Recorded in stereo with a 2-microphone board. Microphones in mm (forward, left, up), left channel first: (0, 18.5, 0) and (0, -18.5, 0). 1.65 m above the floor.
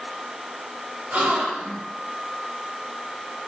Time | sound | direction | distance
1.1 | a gasp | 50° right (ahead or behind) | 1.3 m